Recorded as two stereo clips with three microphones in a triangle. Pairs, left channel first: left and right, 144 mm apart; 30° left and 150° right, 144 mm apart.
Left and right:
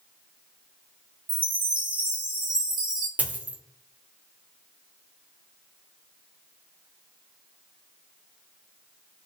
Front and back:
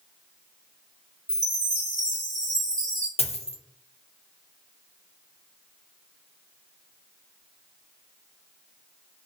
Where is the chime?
85° right, 1.2 m.